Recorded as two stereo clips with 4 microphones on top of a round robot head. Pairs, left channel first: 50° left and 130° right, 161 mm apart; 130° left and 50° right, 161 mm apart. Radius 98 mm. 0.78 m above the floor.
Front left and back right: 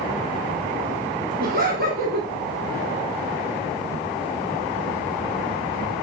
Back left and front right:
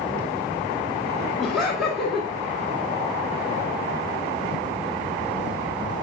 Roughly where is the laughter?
Behind right.